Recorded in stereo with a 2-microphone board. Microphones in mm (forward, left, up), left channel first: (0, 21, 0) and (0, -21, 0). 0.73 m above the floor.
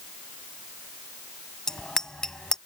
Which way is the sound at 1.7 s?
15° left (ahead or behind).